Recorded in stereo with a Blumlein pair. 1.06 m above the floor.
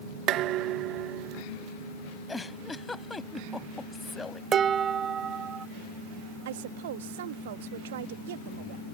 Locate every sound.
0.3 s dishes clattering: 35° right
2.3 s a giggle: 10° left
4.5 s dishes clattering: 25° right
6.5 s a woman speaking: 55° right